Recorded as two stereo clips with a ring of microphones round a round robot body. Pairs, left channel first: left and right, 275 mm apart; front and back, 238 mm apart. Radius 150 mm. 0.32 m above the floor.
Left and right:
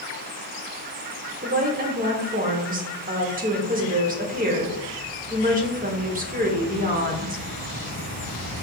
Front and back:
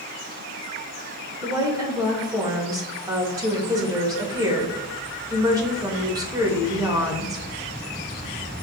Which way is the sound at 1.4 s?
115° right.